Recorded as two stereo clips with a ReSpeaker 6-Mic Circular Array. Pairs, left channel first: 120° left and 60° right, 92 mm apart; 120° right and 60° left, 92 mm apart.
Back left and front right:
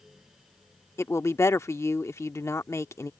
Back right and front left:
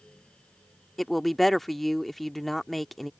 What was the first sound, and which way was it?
A woman speaking, 155° left.